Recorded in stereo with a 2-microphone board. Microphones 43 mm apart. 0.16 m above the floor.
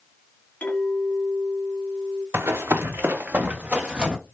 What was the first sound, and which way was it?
A clink, 45° left (ahead or behind).